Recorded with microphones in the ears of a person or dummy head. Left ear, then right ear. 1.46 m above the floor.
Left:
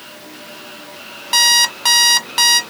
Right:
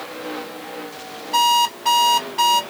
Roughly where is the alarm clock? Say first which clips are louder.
Left 3 dB; left.